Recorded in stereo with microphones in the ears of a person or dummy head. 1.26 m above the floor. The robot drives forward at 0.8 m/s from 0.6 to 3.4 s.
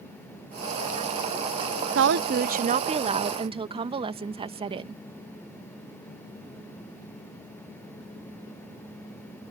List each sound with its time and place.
1.9 s a woman speaking: 60° right (ahead or behind); by 5.0 s 25° right (ahead or behind)